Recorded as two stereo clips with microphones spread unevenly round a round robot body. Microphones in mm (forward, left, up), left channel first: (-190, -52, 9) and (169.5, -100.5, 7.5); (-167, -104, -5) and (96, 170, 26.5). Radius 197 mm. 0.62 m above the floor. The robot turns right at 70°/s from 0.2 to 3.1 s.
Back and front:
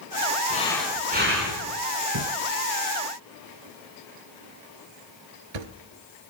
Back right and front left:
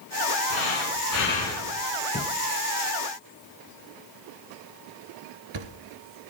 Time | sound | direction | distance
0.5 | breathing | 120° right | 4.5 m
2.1 | a thud | 60° right | 1.4 m